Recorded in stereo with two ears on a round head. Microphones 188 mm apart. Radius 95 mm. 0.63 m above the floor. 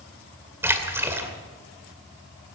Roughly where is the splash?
Centre.